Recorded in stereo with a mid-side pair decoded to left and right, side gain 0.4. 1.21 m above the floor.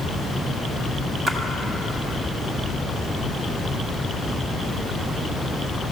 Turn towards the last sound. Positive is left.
turn(degrees=-60)